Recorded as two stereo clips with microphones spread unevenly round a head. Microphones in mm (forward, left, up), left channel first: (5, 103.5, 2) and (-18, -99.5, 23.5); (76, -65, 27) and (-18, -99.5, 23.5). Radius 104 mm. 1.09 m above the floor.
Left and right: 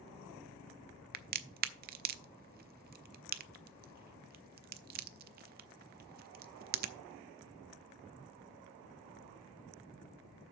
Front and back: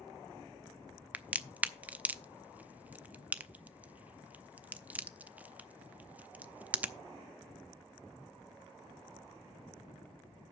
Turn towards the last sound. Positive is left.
turn(degrees=-85)